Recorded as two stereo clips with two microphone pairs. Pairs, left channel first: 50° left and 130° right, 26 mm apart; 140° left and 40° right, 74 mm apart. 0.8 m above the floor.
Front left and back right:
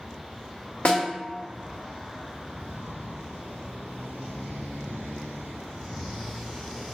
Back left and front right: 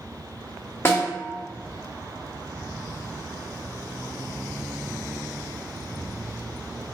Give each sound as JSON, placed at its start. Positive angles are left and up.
{"t": 0.8, "sound": "a snare drum", "azimuth_deg": 80, "distance_m": 1.0}